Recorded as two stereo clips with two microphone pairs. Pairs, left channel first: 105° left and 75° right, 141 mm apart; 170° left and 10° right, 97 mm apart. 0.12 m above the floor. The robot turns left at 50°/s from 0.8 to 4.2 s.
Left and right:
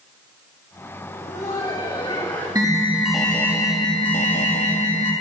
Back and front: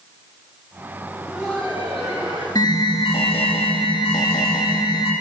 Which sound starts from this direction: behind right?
An alarm, at 2.5 s.